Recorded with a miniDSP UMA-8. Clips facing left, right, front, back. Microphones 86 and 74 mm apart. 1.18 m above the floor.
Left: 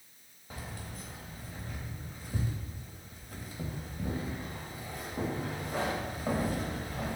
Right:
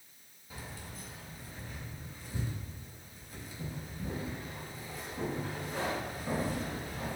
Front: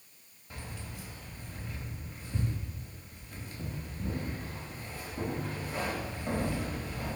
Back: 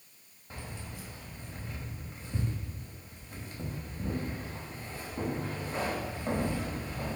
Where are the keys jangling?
120° left, 0.9 m.